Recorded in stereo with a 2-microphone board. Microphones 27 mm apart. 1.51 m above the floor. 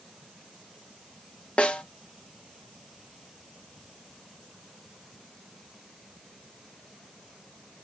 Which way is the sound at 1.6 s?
45° left (ahead or behind).